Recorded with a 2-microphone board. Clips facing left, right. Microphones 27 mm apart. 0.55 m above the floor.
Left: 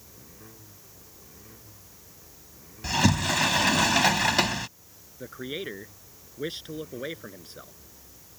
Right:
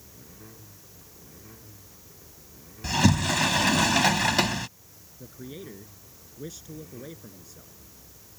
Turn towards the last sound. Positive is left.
turn(degrees=55)  # may be behind; listen again after turning